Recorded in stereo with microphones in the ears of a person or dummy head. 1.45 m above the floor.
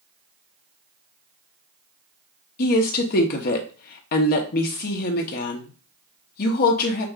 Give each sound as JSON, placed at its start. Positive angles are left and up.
{"t": 2.6, "sound": "a woman speaking", "side_deg": 50, "distance_m": 0.8}